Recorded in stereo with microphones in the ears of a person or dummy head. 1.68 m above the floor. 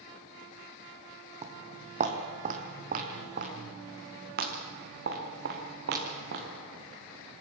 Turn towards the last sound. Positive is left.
turn(degrees=-60)  # may be behind; listen again after turning